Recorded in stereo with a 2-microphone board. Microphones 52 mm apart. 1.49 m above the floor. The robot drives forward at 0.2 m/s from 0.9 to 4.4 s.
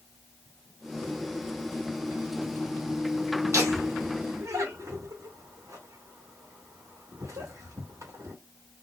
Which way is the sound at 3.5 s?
80° right.